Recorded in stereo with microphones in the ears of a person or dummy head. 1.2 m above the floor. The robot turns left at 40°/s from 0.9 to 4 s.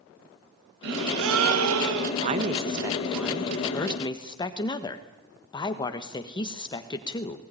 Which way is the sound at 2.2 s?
135° right.